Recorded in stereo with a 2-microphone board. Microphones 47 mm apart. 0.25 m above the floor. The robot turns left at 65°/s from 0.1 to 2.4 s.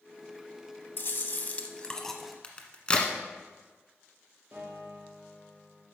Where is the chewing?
85° left, 0.8 m; by 2.3 s 5° right, 0.8 m.